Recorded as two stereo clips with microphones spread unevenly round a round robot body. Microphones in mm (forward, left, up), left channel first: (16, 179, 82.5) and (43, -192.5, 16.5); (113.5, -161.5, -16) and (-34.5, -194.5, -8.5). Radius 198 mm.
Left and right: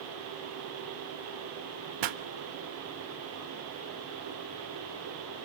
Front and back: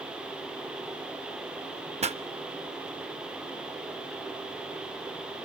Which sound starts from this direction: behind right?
A pop, at 2.0 s.